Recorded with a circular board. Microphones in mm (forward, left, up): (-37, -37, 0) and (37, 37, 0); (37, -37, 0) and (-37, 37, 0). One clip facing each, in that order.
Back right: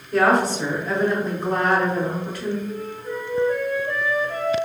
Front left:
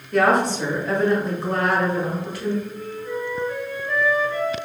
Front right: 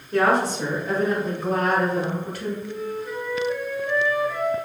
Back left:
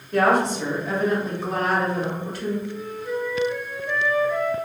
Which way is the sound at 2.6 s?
120° right.